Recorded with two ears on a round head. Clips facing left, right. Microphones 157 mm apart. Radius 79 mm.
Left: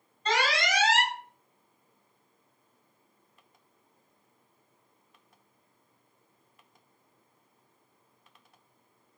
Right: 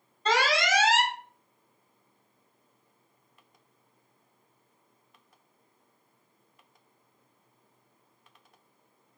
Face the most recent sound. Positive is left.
turn(degrees=-65)  # may be behind; listen again after turning